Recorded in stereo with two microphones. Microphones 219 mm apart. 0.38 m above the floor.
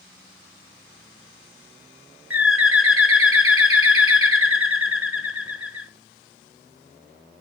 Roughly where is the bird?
Right.